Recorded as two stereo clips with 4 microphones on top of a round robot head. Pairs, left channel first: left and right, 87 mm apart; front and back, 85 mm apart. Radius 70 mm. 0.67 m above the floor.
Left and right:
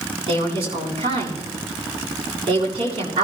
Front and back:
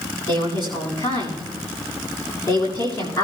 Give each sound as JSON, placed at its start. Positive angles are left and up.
{"t": 0.3, "sound": "a woman speaking", "azimuth_deg": -50, "distance_m": 7.5}